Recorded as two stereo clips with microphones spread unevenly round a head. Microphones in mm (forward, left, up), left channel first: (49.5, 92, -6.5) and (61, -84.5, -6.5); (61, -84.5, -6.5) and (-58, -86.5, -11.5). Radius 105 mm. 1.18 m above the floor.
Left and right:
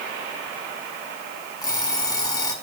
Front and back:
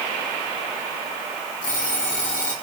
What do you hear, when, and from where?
1.6 s an alarm clock: 25° left, 6.5 m